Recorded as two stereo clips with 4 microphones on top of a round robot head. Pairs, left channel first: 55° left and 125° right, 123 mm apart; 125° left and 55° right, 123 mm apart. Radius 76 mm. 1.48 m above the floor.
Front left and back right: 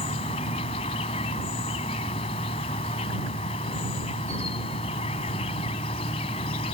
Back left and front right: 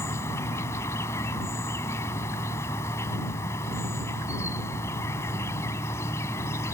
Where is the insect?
65° left.